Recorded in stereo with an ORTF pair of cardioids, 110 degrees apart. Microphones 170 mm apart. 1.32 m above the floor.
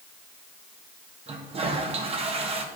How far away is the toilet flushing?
About 1.8 m.